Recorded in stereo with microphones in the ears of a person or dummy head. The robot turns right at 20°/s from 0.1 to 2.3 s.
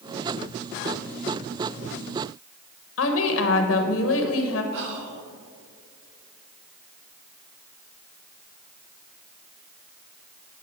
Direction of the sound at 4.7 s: 65° right (ahead or behind).